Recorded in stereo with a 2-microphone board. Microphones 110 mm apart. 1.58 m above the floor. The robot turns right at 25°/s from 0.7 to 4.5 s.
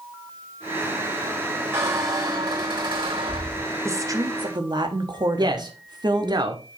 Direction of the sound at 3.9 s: 25° right (ahead or behind).